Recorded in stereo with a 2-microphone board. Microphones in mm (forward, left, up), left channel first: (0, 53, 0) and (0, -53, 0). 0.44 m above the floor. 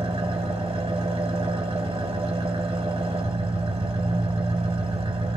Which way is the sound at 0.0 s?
65° right (ahead or behind).